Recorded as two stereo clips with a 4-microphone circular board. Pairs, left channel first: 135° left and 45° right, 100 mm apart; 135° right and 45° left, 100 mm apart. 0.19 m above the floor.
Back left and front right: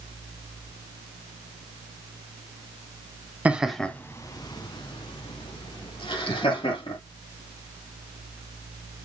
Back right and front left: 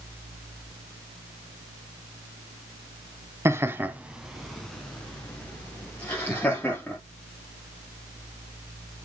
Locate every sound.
3.5 s laughter: 15° left, 1.3 m; by 7.0 s 155° left, 5 m